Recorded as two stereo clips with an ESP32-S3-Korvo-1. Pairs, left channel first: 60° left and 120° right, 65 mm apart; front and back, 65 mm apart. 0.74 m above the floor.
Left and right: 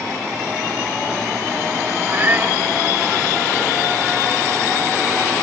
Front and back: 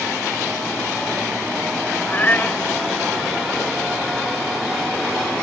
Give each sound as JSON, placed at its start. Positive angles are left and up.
{"t": 2.1, "sound": "a cat meowing", "azimuth_deg": -60}